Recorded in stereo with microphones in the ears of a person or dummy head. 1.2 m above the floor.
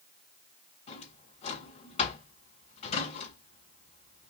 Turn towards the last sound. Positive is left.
turn(degrees=40)  # may be behind; listen again after turning